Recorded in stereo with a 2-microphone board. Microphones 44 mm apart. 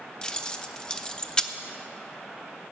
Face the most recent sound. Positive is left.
turn(degrees=20)  # may be behind; listen again after turning